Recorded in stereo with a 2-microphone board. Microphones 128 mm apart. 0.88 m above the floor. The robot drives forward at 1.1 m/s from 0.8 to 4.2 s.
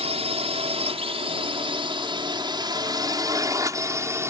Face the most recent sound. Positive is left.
turn(degrees=-20)  # may be behind; listen again after turning